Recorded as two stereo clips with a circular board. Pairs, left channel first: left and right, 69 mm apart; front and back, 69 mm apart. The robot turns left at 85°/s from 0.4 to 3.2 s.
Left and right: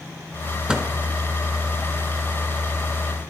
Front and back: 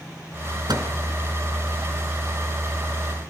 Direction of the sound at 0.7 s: 165° right.